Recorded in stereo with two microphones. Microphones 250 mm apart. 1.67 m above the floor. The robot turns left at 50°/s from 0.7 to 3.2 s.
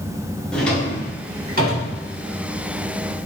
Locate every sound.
0.5 s a drawer: 5° left (ahead or behind), 2.5 m; by 1.9 s 50° right (ahead or behind), 2.5 m